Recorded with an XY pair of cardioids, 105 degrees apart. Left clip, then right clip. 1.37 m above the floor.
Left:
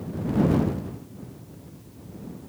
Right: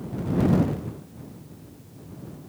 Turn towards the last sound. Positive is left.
No sound to turn to.